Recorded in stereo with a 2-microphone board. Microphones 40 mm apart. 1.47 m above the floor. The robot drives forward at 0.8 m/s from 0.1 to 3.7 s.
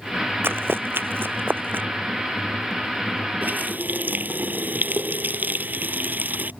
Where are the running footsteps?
60° right (ahead or behind); by 1.9 s 50° right (ahead or behind).